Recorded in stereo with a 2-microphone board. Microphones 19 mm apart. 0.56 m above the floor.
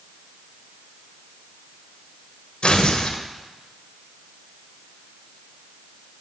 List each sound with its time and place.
2.6 s tearing paper: 70° left (ahead or behind), 1.0 m